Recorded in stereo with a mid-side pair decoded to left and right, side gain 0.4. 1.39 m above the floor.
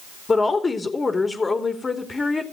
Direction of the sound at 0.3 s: 30° left.